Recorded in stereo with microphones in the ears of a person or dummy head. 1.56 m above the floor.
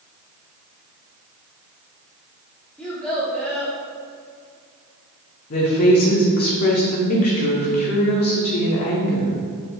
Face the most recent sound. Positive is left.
turn(degrees=50)  # may be behind; listen again after turning